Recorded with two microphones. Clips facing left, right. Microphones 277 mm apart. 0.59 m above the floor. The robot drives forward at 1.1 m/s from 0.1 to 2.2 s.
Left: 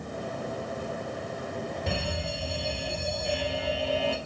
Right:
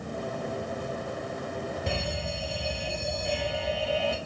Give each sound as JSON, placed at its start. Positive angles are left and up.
{"t": 1.9, "sound": "an alarm", "side_deg": 0, "distance_m": 8.5}